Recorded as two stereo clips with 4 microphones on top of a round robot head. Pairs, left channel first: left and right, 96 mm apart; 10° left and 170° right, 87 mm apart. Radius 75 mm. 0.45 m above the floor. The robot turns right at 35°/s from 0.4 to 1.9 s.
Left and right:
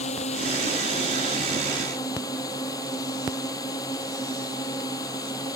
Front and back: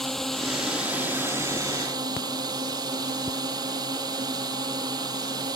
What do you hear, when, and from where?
0.0 s a drone: 100° left; by 5.6 s 150° left